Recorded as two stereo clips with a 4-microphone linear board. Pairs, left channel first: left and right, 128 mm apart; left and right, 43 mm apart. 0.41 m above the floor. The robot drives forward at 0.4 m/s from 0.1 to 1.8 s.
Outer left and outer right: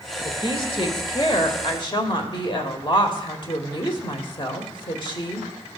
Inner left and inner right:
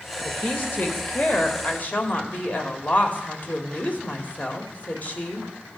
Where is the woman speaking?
45° left (ahead or behind), 1.7 m; by 5.5 s 40° left (ahead or behind), 1.8 m.